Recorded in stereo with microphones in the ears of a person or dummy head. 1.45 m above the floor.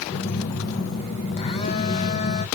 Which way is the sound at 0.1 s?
35° left (ahead or behind).